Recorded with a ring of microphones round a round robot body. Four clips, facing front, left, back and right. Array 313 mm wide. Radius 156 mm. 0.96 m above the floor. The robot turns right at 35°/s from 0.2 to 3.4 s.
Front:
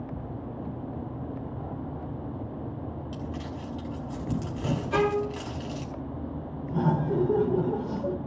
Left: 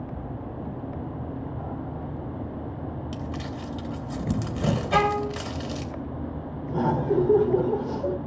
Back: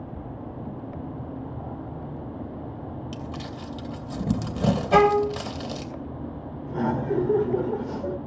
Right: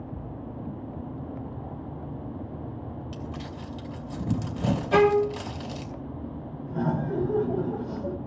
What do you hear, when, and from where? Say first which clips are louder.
3.1 s crumpling: left 4 dB, back 1 dB; 150° left, 3 m; by 5.9 s 160° left, 3 m
4.9 s a violin: right 5 dB, back 8 dB; 165° right, 1.6 m
6.7 s laughter: left 4 dB, back 1 dB; 110° left, 4 m